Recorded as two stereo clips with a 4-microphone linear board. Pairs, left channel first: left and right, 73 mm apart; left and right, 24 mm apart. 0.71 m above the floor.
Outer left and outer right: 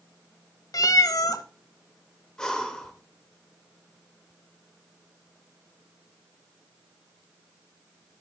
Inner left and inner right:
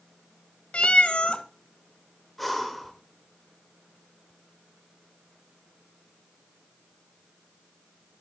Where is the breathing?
10° left (ahead or behind), 1.0 m.